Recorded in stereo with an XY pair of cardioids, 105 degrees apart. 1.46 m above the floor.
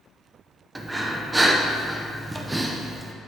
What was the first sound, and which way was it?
Breathing, 15° right.